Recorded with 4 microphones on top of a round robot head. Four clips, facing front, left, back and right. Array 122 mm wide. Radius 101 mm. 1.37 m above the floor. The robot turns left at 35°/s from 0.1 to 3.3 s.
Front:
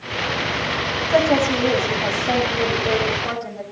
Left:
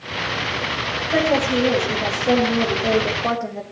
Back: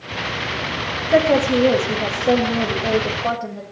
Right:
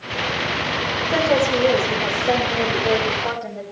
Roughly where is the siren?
No siren in this recording.